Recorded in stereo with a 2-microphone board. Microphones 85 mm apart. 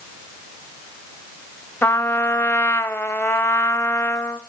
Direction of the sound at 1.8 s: 25° left (ahead or behind).